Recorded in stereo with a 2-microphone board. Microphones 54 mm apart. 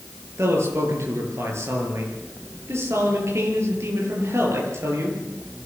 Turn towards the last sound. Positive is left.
turn(degrees=-55)  # may be behind; listen again after turning